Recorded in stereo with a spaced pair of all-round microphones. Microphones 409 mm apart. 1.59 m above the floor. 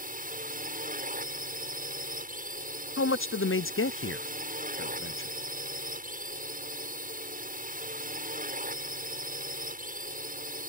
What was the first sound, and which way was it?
A drone, 20° right (ahead or behind).